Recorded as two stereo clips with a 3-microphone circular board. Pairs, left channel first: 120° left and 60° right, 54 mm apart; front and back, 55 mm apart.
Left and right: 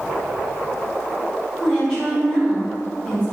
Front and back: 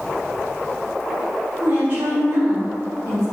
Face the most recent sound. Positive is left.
turn(degrees=-170)